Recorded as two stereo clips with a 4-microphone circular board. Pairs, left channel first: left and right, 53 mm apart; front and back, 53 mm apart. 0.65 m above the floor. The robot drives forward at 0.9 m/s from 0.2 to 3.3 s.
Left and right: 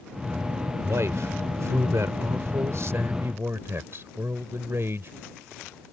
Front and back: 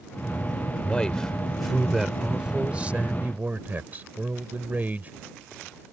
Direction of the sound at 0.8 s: 70° right.